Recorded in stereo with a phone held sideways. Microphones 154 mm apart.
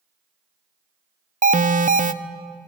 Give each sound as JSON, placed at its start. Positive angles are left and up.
{"t": 1.4, "sound": "an alarm", "side_deg": -60, "distance_m": 0.5}